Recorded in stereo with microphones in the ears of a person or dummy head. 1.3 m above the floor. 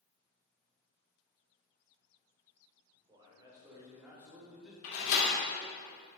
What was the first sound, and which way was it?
A man speaking, 20° right (ahead or behind).